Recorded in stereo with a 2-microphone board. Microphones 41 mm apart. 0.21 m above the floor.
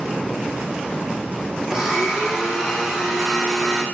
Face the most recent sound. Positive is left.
turn(degrees=-10)  # may be behind; listen again after turning